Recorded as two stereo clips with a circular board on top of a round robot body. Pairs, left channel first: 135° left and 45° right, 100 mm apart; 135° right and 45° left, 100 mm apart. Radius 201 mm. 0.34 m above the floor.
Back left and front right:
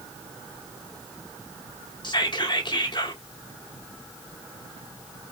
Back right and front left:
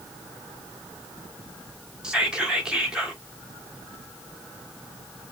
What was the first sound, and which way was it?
Whispering, 125° left.